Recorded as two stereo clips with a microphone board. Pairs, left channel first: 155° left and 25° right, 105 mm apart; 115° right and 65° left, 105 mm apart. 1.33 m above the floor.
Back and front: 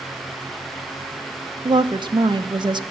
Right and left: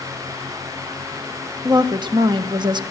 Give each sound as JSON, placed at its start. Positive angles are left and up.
{"t": 1.6, "sound": "a woman speaking", "azimuth_deg": 20, "distance_m": 0.8}